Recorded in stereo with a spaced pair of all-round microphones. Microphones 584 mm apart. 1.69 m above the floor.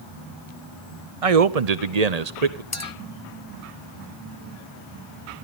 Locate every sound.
1.2 s a man speaking: 60° right (ahead or behind), 0.8 m; by 2.6 s 80° right, 1.2 m
2.7 s a clink: 25° left (ahead or behind), 1.0 m